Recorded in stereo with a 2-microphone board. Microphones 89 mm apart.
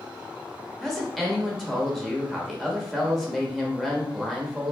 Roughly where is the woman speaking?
Centre.